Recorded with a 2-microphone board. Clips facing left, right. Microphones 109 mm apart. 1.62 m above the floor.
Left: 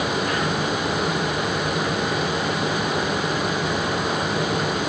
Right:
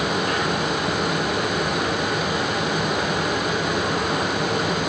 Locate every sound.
Only background noise.